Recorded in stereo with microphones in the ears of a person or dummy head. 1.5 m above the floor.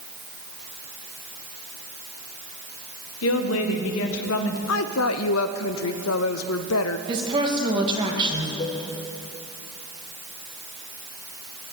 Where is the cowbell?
45° left (ahead or behind), 5.5 m.